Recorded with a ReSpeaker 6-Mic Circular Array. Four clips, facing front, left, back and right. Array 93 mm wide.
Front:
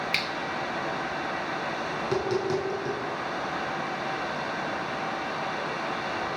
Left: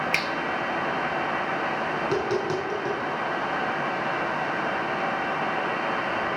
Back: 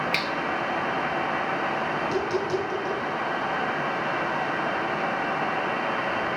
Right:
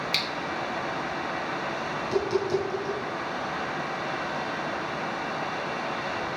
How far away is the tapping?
About 5.5 m.